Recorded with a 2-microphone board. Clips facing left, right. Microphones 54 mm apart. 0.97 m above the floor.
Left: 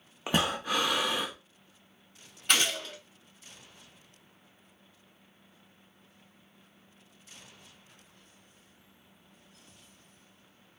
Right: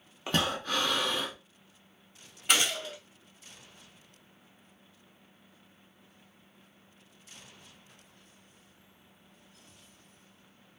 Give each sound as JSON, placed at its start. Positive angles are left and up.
{"t": 0.3, "sound": "breathing", "side_deg": 15, "distance_m": 0.6}
{"t": 2.5, "sound": "a gunshot", "side_deg": -10, "distance_m": 1.3}